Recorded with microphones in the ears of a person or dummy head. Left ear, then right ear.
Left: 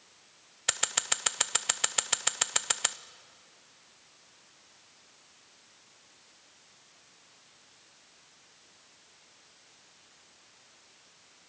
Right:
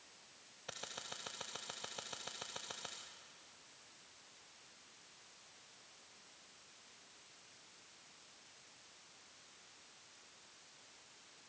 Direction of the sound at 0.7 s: 45° left (ahead or behind).